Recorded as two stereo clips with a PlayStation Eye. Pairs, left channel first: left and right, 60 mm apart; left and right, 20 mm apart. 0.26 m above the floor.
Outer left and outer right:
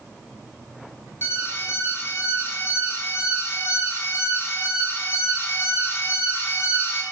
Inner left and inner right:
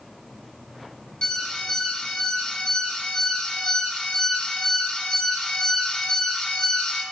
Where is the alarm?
45° left (ahead or behind), 4 m.